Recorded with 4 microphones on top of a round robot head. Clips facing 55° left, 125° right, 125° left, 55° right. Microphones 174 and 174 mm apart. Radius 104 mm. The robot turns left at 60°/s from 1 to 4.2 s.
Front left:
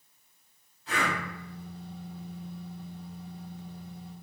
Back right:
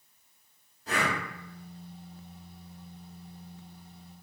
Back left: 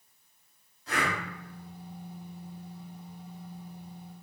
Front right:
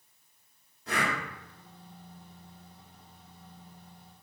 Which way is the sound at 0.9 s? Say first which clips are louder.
Back right 1 dB, even; 80° right.